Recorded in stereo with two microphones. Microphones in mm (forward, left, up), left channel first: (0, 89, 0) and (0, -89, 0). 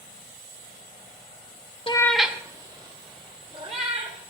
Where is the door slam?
No door slam in this recording.